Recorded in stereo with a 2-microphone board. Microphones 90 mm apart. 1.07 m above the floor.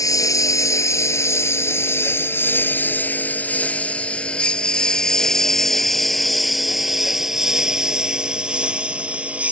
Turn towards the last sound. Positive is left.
turn(degrees=-15)  # may be behind; listen again after turning